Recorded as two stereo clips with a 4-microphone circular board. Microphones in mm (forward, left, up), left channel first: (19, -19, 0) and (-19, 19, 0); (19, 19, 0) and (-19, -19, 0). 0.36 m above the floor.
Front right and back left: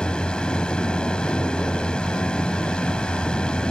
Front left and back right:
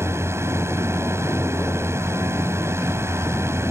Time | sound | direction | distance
0.0 | a drone | 115° right | ?